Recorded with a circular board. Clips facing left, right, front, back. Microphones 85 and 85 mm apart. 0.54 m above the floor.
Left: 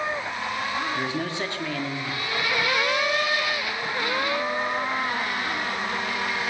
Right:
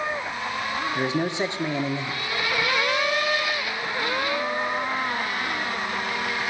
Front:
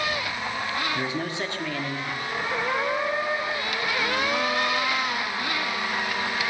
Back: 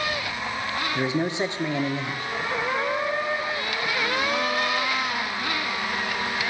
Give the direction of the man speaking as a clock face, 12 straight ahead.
4 o'clock.